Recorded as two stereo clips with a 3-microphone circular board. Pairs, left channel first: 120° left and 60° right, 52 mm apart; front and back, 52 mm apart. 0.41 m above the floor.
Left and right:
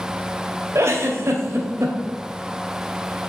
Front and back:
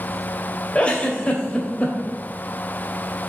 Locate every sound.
0.8 s a giggle: 65° right, 1.6 m